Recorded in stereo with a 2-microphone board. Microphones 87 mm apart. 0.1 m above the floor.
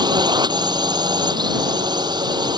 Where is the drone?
55° right (ahead or behind).